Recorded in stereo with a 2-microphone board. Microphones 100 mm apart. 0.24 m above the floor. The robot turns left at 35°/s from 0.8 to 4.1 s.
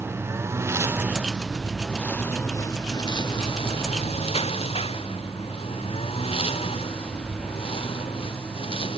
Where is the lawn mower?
25° right (ahead or behind); by 9.0 s 70° left (ahead or behind).